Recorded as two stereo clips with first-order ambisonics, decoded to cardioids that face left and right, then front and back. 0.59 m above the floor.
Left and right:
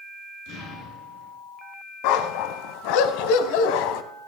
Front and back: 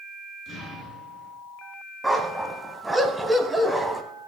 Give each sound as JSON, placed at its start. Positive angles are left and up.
{"t": 0.5, "sound": "an explosion", "azimuth_deg": 65, "distance_m": 5.5}
{"t": 2.0, "sound": "a dog barking", "azimuth_deg": 95, "distance_m": 1.0}